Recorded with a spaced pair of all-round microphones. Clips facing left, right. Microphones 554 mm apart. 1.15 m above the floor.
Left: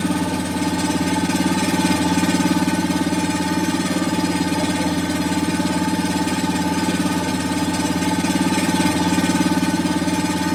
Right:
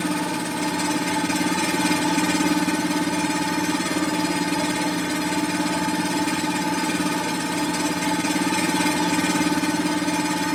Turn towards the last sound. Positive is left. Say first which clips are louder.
# left 4 dB
turn(degrees=55)  # may be behind; listen again after turning